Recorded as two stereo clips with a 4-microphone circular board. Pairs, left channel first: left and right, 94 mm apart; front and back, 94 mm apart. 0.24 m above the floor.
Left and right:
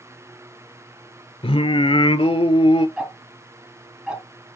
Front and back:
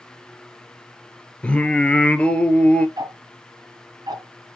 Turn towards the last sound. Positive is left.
turn(degrees=-170)